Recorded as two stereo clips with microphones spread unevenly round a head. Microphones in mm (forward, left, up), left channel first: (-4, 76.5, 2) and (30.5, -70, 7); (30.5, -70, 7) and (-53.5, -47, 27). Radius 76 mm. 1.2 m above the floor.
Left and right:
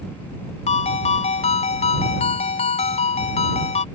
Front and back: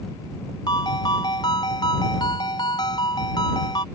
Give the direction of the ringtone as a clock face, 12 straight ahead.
10 o'clock.